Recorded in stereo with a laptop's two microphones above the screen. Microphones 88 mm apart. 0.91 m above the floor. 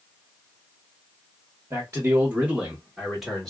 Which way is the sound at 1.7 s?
35° right (ahead or behind).